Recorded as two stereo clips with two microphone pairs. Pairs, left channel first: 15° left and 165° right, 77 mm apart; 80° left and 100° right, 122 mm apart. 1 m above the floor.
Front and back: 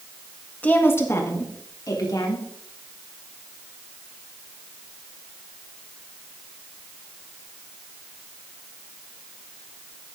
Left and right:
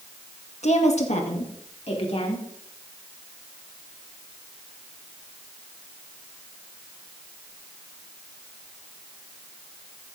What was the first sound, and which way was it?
A woman speaking, 85° left.